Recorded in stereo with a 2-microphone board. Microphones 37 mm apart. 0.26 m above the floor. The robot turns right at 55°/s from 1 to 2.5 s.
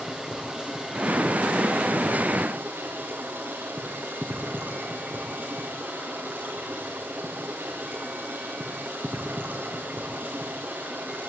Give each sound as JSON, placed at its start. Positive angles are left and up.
{"t": 0.0, "sound": "running water", "azimuth_deg": -150, "distance_m": 5.5}